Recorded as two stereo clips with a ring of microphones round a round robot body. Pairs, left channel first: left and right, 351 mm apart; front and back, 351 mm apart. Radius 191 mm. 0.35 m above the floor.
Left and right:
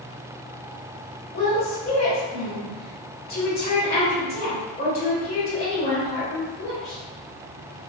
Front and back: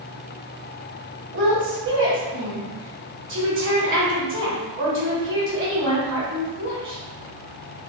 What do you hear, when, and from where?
1.3 s a woman speaking: 145° left, 1.6 m